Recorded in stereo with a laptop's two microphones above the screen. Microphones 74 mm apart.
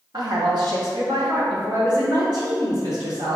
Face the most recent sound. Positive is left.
turn(degrees=-80)